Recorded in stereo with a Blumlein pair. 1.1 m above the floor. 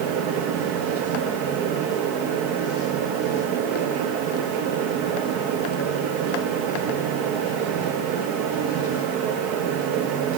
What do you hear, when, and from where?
0.0 s a fan: 45° right, 1.1 m